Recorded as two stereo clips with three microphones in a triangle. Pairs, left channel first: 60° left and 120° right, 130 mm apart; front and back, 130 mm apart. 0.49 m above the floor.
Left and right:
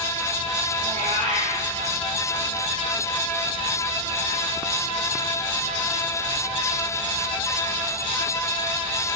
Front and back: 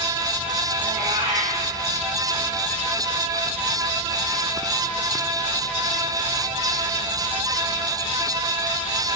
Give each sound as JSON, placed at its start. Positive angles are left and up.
{"t": 0.8, "sound": "a cat meowing", "azimuth_deg": -145, "distance_m": 5.5}